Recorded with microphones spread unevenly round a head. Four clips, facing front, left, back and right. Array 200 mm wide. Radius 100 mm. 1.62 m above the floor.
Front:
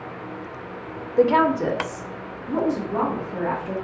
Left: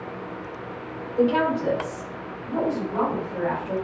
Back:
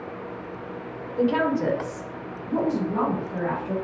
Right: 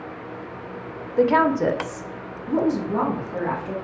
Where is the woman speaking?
25° right, 0.7 m; by 3.7 s 115° right, 2 m.